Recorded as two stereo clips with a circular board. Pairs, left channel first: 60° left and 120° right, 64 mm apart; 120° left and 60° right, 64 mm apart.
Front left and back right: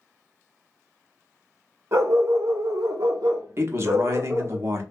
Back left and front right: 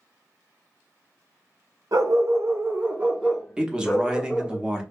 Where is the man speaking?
130° right, 0.7 m.